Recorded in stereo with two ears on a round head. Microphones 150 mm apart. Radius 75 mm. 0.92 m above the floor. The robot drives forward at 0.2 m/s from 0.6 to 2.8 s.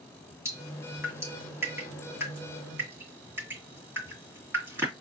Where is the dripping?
15° right (ahead or behind), 2 m.